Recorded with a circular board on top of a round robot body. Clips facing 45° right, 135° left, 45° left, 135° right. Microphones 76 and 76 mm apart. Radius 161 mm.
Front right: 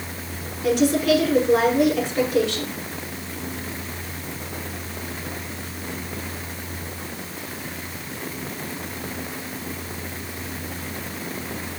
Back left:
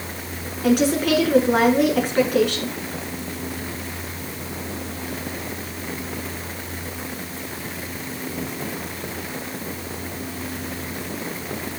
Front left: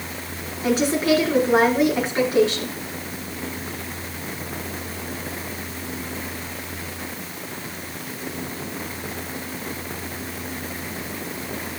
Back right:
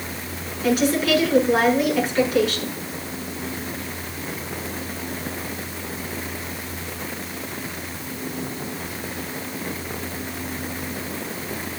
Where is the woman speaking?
100° left, 7 m.